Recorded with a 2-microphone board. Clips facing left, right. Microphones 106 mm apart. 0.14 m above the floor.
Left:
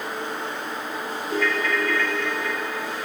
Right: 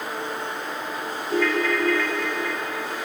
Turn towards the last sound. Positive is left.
turn(degrees=-10)  # may be behind; listen again after turning